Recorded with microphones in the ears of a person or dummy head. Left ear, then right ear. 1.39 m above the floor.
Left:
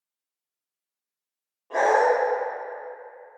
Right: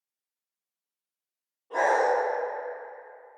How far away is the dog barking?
About 1.6 m.